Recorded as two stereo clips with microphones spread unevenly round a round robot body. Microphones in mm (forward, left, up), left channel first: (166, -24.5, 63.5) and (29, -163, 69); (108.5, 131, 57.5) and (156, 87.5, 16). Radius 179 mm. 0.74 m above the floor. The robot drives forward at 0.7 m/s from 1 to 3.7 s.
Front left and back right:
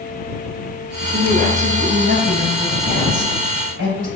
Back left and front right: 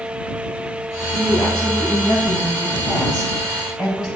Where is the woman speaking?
165° left, 3 m; by 4.1 s 170° left, 5 m.